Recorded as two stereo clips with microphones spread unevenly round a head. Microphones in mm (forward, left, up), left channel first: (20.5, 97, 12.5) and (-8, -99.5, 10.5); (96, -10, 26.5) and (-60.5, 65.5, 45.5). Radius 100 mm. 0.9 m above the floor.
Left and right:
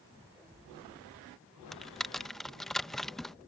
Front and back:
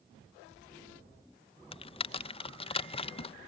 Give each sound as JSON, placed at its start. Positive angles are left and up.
{"t": 1.7, "sound": "typing on a keyboard", "azimuth_deg": -5}